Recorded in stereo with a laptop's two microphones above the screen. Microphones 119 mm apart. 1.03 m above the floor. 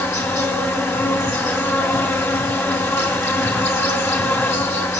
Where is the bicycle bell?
I don't hear a bicycle bell.